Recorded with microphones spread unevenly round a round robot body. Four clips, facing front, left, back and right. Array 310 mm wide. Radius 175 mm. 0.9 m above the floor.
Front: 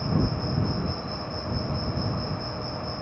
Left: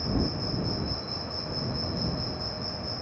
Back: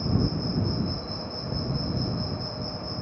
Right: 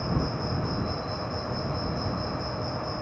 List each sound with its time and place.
0.0 s an insect: 175° left